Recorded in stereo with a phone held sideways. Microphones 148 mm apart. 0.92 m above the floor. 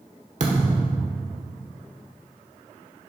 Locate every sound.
0.4 s a thud: 50° right (ahead or behind), 1.4 m